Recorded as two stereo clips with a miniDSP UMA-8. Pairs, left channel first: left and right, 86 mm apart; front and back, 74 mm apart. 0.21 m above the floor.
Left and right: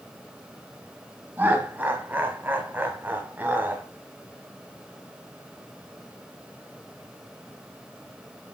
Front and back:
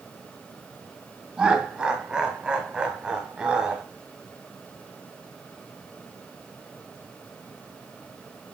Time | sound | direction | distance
1.4 | laughter | 115° right | 1.2 m